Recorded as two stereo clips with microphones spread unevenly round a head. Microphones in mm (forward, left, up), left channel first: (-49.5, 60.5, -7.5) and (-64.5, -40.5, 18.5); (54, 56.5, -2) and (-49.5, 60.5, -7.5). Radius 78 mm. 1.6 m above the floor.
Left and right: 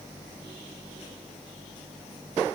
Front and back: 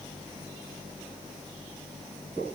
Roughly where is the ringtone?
No ringtone in this recording.